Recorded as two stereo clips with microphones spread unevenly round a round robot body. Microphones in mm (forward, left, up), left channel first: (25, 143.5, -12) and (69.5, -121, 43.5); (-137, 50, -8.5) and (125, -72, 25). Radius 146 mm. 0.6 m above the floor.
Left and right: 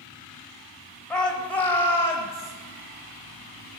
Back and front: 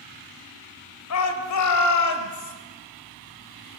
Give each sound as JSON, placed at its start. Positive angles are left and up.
{"t": 1.1, "sound": "a shout", "azimuth_deg": -175, "distance_m": 3.0}